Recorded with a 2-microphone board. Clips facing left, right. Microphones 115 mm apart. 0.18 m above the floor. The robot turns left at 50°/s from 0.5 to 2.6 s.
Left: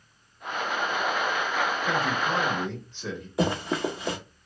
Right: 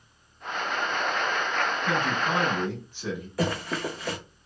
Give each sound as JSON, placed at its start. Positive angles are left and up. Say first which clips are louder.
{"t": 1.9, "sound": "a man speaking", "louder": "even", "side_deg": -20, "distance_m": 1.1}
{"t": 3.4, "sound": "running footsteps", "louder": "left 3 dB", "side_deg": 20, "distance_m": 0.6}